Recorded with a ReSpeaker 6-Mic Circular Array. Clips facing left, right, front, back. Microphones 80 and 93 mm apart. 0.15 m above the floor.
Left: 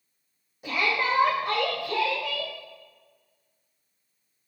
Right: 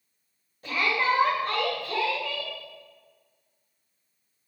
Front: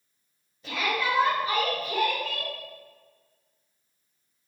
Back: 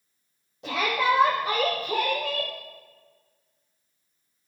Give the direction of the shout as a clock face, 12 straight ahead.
6 o'clock.